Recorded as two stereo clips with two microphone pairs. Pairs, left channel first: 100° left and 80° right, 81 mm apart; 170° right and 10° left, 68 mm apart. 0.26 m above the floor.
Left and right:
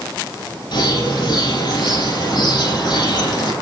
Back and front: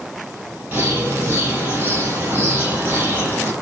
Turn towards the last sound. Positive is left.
turn(degrees=70)